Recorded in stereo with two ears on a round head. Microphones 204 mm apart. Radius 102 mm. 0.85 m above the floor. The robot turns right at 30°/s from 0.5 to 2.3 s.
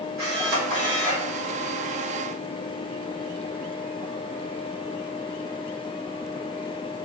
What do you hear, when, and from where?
0.2 s a camera shutter: 45° right (ahead or behind), 1.7 m; by 1.3 s 25° right (ahead or behind), 1.7 m